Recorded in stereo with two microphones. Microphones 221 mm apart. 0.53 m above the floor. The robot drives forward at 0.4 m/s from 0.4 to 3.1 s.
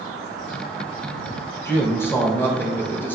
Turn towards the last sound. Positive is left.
turn(degrees=10)  # may be behind; listen again after turning